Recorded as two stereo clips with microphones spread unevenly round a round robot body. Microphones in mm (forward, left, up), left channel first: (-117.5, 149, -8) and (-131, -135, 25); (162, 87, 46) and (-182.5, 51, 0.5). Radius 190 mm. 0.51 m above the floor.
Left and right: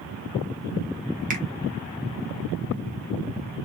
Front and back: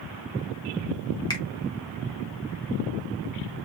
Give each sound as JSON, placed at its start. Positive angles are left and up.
{"t": 1.3, "sound": "a finger snap", "azimuth_deg": -75, "distance_m": 0.6}